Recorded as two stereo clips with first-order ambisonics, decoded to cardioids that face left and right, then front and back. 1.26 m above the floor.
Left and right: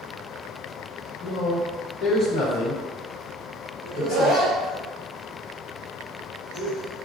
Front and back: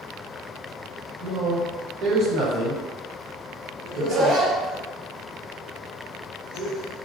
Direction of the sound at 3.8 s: 135° right.